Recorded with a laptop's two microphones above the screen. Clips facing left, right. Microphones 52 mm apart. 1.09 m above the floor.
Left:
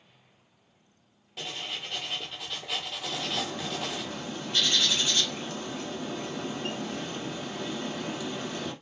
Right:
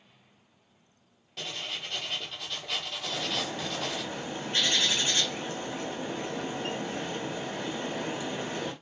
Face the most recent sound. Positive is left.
turn(degrees=-35)  # may be behind; listen again after turning